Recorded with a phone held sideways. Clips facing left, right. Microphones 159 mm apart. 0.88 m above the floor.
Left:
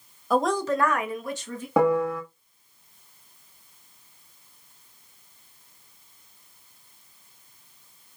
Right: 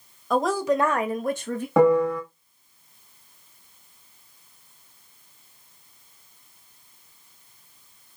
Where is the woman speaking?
5° left (ahead or behind), 0.8 m; by 1.7 s 70° right (ahead or behind), 0.8 m.